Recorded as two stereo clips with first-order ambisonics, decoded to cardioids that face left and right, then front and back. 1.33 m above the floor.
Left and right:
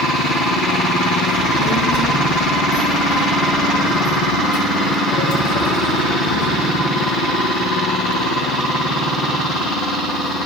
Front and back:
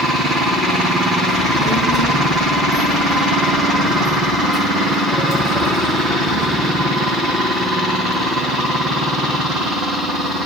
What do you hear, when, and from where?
1.3 s a child speaking: 100° left, 3.5 m; by 6.8 s 80° left, 7.5 m